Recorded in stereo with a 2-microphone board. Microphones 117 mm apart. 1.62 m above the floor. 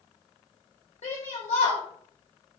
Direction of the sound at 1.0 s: 75° left (ahead or behind).